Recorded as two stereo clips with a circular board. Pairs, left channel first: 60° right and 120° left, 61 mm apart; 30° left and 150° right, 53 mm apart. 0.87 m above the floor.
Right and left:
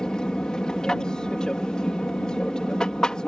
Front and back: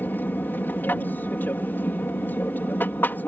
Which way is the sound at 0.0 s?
10° left.